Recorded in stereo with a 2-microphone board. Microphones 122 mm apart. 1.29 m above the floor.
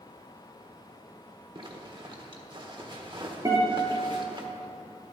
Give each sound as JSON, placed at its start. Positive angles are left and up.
{"t": 1.6, "sound": "a zipper", "side_deg": -40, "distance_m": 1.4}
{"t": 3.5, "sound": "a guitar", "side_deg": -30, "distance_m": 3.0}